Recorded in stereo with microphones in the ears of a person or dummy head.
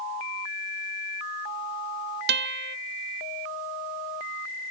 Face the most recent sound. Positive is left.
turn(degrees=-60)  # may be behind; listen again after turning